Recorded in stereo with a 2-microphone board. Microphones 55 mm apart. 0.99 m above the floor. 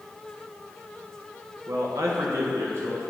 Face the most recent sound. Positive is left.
turn(degrees=-55)  # may be behind; listen again after turning